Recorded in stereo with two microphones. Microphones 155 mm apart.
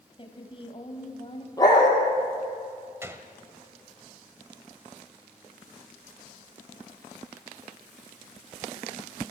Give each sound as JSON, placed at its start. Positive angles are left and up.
{"t": 0.2, "sound": "a woman speaking", "side_deg": 35, "distance_m": 3.0}
{"t": 1.6, "sound": "a dog barking", "side_deg": 25, "distance_m": 5.5}
{"t": 3.0, "sound": "a gunshot", "side_deg": -15, "distance_m": 1.3}